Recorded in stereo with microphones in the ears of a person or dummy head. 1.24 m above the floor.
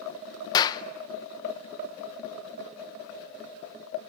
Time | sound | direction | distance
0.5 | a clap | 25° left (ahead or behind) | 0.9 m